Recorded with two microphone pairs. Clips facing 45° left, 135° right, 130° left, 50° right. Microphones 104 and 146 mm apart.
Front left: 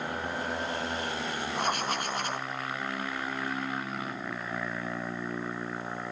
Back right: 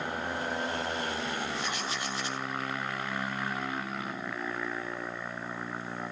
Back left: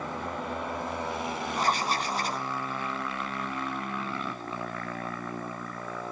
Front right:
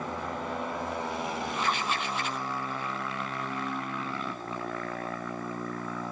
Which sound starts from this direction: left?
Writing, at 1.6 s.